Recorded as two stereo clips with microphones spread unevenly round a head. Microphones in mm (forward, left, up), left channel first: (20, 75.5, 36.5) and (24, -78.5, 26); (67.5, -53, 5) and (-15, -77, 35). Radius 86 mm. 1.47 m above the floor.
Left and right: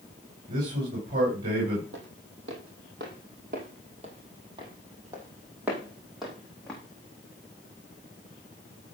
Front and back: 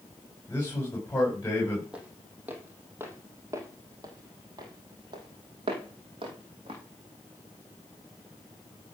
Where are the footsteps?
100° right, 3.5 m; by 6.8 s 175° left, 4.5 m.